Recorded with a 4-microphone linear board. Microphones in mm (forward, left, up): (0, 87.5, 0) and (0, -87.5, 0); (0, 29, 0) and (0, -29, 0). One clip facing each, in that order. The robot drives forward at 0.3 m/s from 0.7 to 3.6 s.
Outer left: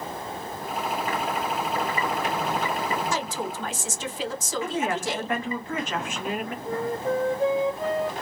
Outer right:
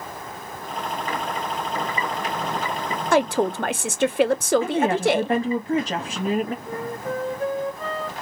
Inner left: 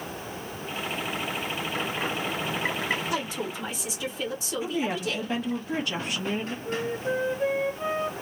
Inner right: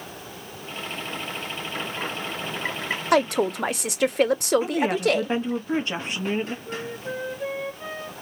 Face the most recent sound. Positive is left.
turn(degrees=25)  # may be behind; listen again after turning